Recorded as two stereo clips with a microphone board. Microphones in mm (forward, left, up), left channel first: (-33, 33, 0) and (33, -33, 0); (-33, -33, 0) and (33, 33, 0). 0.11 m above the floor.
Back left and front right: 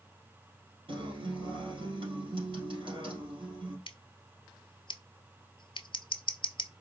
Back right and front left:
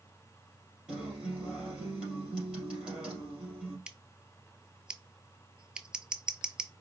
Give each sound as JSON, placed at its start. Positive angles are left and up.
{"t": 0.9, "sound": "a guitar", "azimuth_deg": -35, "distance_m": 3.0}
{"t": 3.9, "sound": "scissors", "azimuth_deg": 125, "distance_m": 0.5}